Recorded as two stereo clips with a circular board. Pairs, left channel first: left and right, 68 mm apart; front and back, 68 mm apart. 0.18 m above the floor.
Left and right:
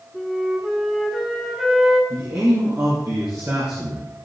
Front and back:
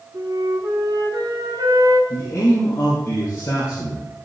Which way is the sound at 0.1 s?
Straight behind.